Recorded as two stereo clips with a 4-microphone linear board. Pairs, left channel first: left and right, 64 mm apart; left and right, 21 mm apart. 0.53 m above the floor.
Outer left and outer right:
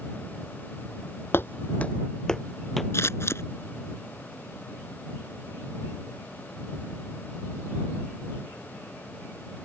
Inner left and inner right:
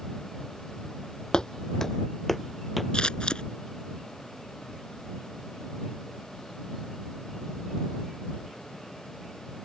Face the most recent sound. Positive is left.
turn(degrees=45)  # may be behind; listen again after turning